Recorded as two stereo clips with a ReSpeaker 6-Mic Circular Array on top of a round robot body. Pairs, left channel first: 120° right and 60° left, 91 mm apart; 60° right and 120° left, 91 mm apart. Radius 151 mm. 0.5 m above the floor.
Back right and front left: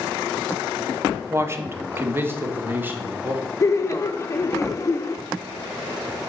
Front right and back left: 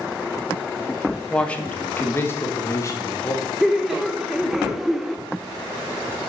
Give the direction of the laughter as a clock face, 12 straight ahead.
5 o'clock.